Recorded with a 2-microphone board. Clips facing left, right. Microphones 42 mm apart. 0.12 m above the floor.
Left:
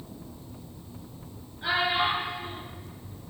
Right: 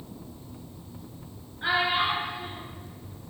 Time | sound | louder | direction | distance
1.6 | a child speaking | right 1 dB | 35° right (ahead or behind) | 1.4 m